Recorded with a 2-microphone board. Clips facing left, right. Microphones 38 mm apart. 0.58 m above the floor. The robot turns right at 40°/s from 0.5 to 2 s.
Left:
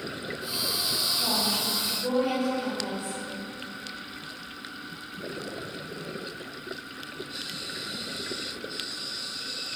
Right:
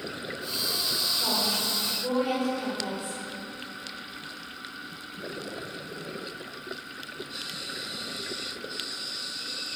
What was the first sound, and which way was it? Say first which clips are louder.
A woman speaking: even; 55° right.